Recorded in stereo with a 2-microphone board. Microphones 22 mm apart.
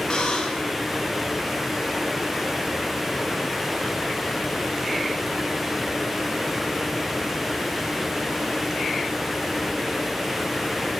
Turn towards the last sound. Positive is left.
turn(degrees=35)  # may be behind; listen again after turning